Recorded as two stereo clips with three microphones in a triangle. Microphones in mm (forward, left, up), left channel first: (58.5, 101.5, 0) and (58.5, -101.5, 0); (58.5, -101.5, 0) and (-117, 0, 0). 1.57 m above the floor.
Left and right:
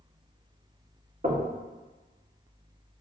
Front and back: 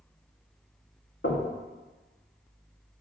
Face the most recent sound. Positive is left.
turn(degrees=-45)